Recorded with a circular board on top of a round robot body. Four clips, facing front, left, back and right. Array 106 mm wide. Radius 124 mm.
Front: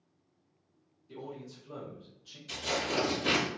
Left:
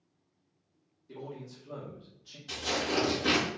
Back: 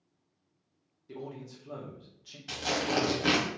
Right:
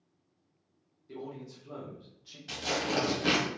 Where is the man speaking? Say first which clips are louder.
Right 1 dB, back 2 dB; 165° right, 1.5 m.